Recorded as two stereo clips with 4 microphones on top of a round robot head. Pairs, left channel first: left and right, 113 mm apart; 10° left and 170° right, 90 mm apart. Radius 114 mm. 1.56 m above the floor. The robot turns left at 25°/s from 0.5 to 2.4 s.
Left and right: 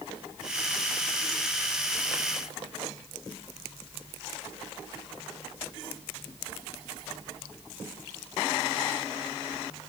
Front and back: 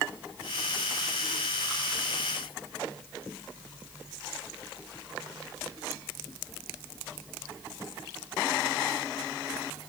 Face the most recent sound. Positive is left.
No sound to turn to.